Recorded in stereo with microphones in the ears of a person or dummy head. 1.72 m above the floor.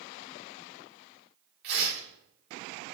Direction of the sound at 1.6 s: 65° right (ahead or behind).